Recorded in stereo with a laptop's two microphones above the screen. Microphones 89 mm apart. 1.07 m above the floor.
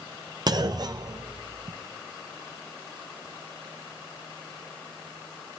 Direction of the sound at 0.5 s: 45° right (ahead or behind).